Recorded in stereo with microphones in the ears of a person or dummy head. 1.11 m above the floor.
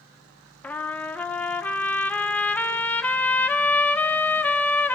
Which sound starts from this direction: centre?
A trumpet, at 0.6 s.